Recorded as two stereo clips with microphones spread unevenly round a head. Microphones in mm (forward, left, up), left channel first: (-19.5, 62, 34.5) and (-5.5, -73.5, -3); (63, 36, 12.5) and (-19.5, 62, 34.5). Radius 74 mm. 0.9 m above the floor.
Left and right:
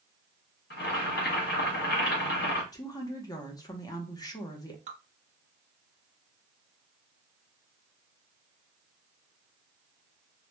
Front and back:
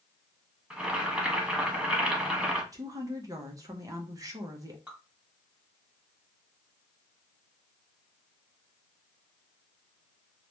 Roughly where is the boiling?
Left.